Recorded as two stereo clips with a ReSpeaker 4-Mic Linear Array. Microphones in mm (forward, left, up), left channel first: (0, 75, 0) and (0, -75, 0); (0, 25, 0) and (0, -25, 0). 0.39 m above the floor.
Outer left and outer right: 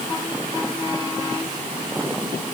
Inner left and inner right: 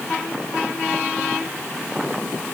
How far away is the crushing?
I don't hear crushing.